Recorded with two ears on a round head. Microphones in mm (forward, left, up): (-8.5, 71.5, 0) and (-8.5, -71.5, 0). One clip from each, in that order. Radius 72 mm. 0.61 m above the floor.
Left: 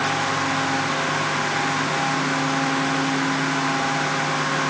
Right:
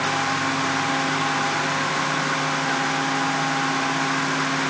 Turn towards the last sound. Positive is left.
No sound to turn to.